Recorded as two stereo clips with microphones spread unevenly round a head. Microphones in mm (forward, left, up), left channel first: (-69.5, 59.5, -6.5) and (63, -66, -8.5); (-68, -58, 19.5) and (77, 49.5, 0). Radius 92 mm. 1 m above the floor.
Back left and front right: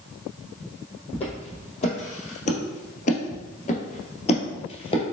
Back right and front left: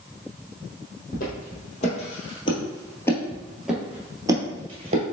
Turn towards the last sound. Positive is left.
turn(degrees=85)